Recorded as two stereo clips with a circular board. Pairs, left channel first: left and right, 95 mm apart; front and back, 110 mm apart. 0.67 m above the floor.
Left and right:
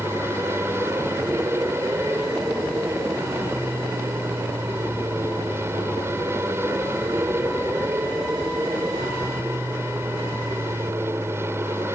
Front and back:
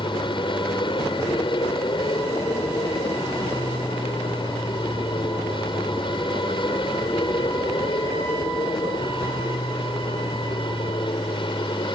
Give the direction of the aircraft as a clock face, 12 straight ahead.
1 o'clock.